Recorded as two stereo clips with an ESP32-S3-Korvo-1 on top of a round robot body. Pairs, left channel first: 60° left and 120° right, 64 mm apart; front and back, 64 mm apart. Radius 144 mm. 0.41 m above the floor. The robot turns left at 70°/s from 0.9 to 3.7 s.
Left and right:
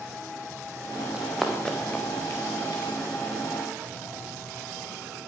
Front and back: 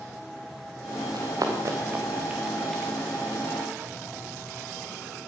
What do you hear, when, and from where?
1.1 s running footsteps: 170° left, 3 m; by 2.8 s 80° left, 2 m